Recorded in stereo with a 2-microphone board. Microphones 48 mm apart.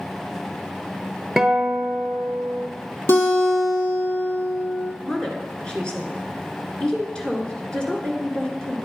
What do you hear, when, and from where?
1.4 s a guitar: 5° right (ahead or behind), 1.1 m
3.1 s a guitar: 55° left (ahead or behind), 2.5 m
5.0 s a woman speaking: 20° left (ahead or behind), 1.7 m